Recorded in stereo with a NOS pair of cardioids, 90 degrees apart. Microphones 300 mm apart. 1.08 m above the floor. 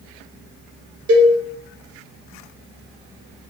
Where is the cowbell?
50° right, 0.7 m.